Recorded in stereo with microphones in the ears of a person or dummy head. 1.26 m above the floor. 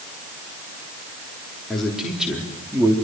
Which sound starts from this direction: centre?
A man speaking, at 1.7 s.